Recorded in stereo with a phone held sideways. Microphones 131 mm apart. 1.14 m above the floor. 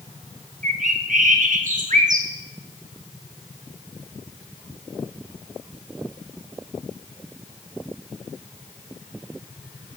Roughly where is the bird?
Right.